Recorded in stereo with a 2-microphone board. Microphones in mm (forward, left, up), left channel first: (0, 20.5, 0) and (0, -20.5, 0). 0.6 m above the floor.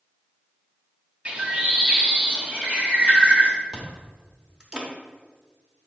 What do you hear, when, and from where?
1.2 s a bird: 30° right (ahead or behind), 1.1 m
3.7 s chewing: 20° right (ahead or behind), 1.2 m